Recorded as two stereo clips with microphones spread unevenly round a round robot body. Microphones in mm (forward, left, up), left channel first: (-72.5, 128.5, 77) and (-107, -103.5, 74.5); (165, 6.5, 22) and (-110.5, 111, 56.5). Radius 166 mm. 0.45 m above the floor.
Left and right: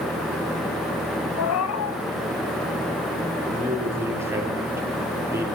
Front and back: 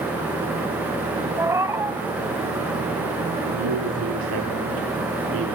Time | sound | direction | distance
1.4 | a cat meowing | 80° left | 1.7 m
3.5 | a man speaking | straight behind | 9 m